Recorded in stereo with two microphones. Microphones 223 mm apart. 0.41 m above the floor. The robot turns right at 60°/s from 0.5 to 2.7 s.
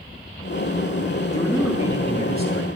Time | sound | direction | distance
1.3 | a man speaking | 160° left | 4.5 m